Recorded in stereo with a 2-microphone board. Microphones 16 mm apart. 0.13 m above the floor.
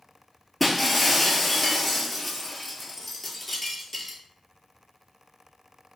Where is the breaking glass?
10° left (ahead or behind), 0.6 m.